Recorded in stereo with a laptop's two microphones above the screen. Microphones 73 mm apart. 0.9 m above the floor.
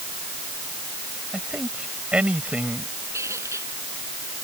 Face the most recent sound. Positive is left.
turn(degrees=-40)  # may be behind; listen again after turning